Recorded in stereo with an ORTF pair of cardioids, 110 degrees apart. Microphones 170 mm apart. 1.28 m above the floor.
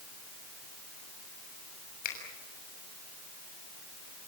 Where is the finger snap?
60° left, 6.5 m.